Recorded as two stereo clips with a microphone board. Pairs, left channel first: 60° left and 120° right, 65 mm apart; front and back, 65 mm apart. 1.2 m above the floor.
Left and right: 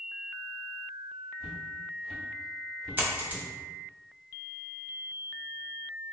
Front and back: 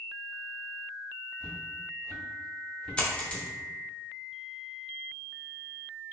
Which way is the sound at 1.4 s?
70° right.